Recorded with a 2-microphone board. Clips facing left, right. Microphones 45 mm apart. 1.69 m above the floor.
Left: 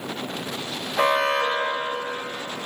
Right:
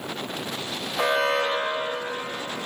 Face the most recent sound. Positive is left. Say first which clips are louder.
# left 2 dB
turn(degrees=55)  # may be behind; listen again after turning